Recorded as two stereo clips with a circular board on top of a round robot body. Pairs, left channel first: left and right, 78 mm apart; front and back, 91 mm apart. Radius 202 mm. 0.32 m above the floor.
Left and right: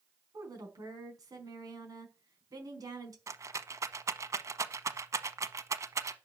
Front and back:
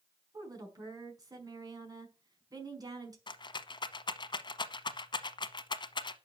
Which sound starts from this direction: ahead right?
A rattle, at 3.3 s.